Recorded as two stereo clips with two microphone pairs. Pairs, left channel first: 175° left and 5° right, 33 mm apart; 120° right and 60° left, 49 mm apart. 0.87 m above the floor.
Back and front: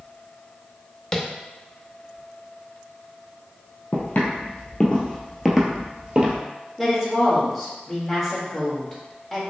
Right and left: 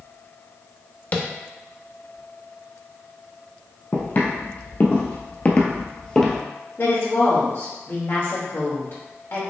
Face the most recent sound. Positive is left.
turn(degrees=-95)